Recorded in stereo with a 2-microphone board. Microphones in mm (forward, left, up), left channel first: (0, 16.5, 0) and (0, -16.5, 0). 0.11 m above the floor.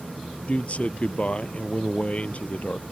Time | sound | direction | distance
0.5 | a man speaking | 40° left (ahead or behind) | ?